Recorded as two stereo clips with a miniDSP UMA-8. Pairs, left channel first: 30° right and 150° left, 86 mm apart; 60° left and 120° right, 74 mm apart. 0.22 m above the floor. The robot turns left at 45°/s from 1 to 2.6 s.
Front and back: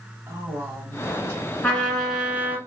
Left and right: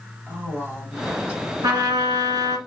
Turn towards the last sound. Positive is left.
turn(degrees=-145)